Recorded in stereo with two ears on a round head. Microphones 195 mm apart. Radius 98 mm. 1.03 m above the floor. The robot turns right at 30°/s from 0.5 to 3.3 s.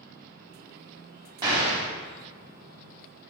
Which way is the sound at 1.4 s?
20° right (ahead or behind).